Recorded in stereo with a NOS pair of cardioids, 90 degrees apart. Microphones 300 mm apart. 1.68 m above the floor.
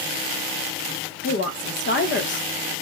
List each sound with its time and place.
1.2 s a woman speaking: 40° left, 0.7 m